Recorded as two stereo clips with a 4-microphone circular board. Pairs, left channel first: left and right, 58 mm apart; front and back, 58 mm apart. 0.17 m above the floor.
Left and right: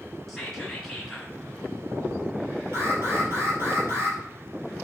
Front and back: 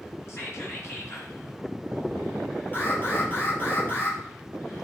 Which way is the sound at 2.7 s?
55° right.